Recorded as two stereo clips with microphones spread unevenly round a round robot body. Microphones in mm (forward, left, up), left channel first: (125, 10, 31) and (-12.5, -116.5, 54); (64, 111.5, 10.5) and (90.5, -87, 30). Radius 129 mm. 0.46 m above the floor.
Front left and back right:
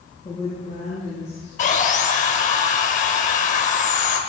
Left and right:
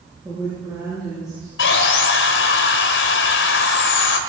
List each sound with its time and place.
0.2 s a woman speaking: 10° right, 6.5 m
1.6 s sawing: 90° left, 1.4 m